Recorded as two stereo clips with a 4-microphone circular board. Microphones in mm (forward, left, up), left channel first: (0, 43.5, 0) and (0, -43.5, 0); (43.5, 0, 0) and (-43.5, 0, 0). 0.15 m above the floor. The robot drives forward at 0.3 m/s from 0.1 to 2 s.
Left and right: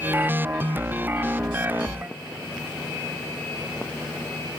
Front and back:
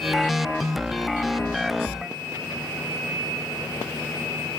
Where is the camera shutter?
No camera shutter in this recording.